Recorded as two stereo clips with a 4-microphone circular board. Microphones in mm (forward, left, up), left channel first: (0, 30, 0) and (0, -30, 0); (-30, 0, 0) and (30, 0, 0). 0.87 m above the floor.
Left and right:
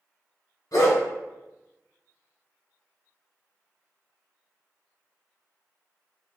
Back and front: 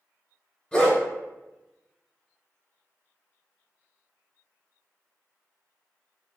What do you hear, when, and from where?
0.7 s a dog barking: 100° left, 1.5 m